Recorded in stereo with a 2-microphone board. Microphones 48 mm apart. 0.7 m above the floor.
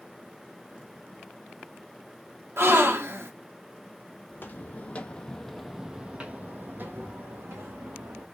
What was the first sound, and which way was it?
A gasp, 65° right (ahead or behind).